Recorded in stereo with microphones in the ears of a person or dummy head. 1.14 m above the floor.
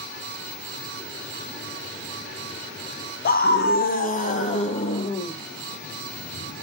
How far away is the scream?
About 0.8 m.